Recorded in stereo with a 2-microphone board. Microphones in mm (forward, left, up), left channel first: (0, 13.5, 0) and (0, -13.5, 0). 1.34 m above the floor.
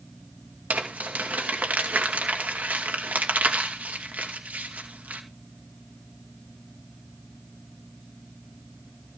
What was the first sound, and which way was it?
Crumpling, 80° right.